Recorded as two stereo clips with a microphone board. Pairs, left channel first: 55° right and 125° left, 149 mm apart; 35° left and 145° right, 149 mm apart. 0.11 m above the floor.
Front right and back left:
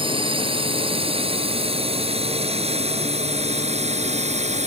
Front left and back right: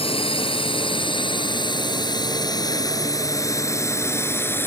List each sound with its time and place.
0.0 s a drone: 80° left; by 4.7 s 105° left